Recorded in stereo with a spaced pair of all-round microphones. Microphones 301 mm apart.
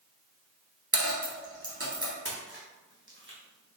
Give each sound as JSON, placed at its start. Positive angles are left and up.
{"t": 0.9, "sound": "a dropped coin", "side_deg": -50, "distance_m": 1.4}
{"t": 2.2, "sound": "a splash", "side_deg": -40, "distance_m": 1.0}